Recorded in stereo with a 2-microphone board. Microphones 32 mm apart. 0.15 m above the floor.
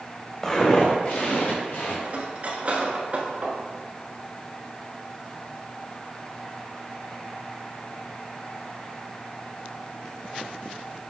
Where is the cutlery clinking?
40° right (ahead or behind), 1.1 m.